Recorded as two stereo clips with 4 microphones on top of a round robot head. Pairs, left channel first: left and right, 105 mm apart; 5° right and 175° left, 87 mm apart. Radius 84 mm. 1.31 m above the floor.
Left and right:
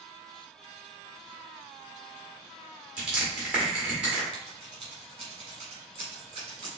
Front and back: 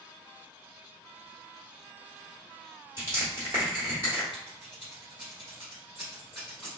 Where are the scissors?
100° right, 1.0 m.